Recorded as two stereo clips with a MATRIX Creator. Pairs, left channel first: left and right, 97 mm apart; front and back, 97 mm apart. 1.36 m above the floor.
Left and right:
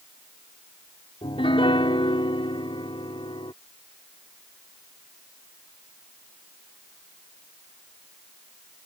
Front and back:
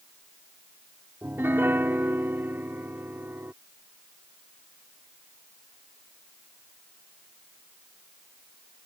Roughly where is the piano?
Behind left.